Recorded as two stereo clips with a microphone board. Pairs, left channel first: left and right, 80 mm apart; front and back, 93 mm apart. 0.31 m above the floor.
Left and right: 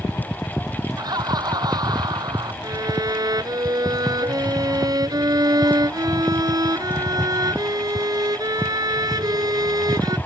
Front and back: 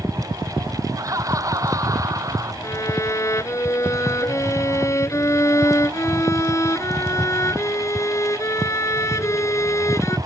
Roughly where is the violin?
Ahead right.